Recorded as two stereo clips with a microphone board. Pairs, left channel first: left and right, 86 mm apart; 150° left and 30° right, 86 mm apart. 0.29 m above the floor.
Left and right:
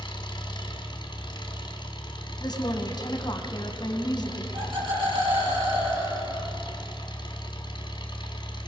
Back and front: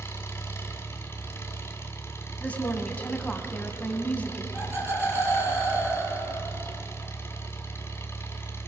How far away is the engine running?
About 2.0 m.